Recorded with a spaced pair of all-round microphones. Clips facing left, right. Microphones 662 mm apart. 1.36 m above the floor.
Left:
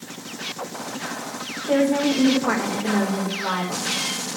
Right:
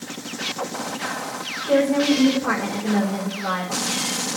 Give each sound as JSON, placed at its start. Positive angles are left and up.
{"t": 1.7, "sound": "a woman speaking", "side_deg": -40, "distance_m": 5.0}